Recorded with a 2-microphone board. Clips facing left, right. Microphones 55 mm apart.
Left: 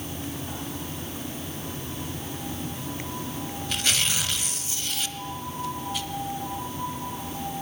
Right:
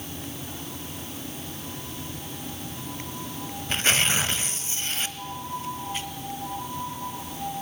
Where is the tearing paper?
35° right (ahead or behind), 0.9 m.